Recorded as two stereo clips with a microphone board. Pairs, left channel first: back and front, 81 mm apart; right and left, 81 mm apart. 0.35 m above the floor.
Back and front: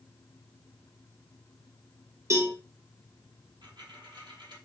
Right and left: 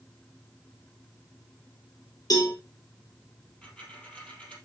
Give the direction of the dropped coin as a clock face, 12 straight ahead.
1 o'clock.